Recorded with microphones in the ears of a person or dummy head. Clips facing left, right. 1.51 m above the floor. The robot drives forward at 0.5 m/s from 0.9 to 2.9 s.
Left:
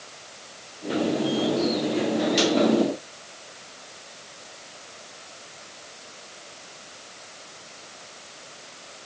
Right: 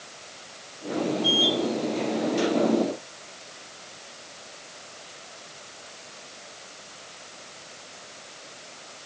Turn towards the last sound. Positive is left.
No sound to turn to.